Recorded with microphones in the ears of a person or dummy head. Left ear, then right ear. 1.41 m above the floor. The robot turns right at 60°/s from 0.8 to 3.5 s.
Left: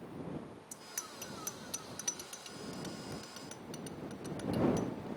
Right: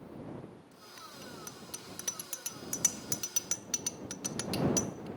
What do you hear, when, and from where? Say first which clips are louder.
0.7 s a bicycle bell: left 6 dB; 60° left (ahead or behind); by 5.1 s 75° right (ahead or behind)